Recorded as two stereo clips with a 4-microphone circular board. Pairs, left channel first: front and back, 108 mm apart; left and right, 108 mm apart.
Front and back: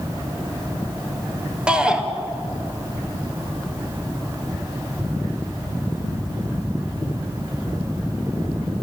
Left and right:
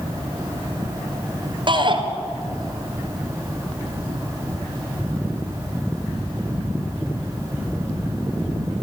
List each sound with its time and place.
1.7 s a shout: 100° right, 2.5 m